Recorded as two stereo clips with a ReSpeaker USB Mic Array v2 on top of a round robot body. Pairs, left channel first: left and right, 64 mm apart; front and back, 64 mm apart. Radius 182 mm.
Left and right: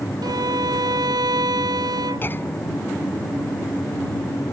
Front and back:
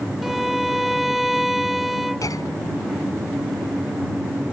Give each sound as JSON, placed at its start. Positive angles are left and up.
{"t": 0.2, "sound": "a violin", "azimuth_deg": -90}
{"t": 2.2, "sound": "a clunk", "azimuth_deg": 30}